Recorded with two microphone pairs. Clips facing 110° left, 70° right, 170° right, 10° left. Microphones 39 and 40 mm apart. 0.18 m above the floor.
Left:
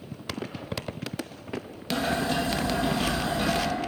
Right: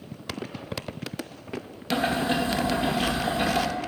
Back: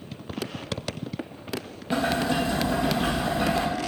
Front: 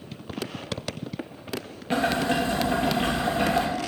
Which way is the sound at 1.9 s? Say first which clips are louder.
Right 2 dB, front 1 dB; 20° right.